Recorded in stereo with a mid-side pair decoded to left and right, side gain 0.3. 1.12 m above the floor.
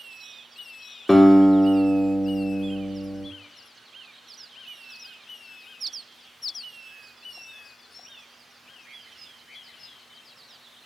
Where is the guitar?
20° left, 2.5 m.